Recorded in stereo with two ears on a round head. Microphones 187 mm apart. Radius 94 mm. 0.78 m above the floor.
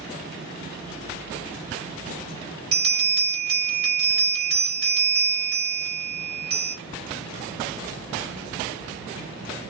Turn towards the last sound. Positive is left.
turn(degrees=-65)  # may be behind; listen again after turning